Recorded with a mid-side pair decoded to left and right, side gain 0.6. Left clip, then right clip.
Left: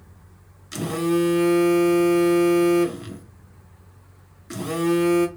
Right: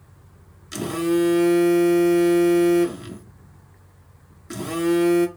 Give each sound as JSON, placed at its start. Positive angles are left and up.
{"t": 0.7, "sound": "a phone buzzing", "azimuth_deg": -5, "distance_m": 0.6}